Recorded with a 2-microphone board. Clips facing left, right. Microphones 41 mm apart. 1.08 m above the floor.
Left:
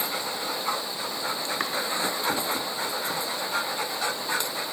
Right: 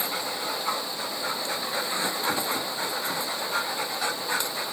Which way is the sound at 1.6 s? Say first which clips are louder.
Left 3 dB; 75° left (ahead or behind).